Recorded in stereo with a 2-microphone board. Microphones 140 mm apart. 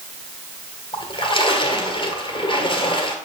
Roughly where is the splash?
Left.